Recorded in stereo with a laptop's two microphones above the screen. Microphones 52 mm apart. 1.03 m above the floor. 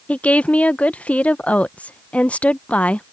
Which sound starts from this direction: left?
A woman speaking, at 0.1 s.